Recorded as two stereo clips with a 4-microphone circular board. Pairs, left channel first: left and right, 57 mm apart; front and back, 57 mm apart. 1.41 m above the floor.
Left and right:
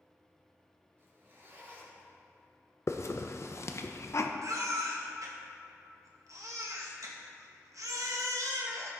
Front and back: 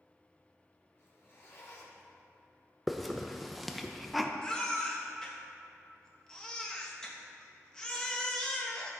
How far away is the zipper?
About 2.5 m.